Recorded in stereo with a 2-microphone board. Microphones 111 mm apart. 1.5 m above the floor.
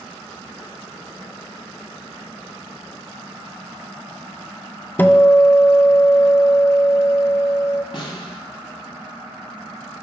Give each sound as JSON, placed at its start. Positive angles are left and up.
{"t": 5.0, "sound": "a guitar", "side_deg": 15, "distance_m": 0.5}
{"t": 7.9, "sound": "a snare drum", "side_deg": 45, "distance_m": 1.9}